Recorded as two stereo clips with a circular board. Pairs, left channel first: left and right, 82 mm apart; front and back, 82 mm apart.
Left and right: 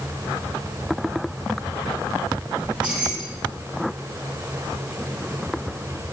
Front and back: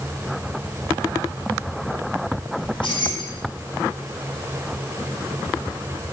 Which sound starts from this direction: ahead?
Keys jangling, at 2.6 s.